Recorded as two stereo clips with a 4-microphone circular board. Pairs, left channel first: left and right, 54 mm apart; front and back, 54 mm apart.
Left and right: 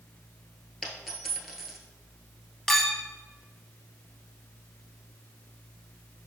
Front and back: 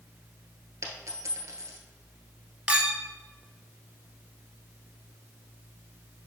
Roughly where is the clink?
Behind.